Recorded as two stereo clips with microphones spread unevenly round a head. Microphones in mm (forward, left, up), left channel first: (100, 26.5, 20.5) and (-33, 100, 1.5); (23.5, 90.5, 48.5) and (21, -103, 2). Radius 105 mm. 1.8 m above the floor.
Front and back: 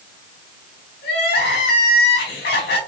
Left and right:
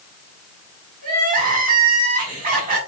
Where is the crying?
40° right, 4 m.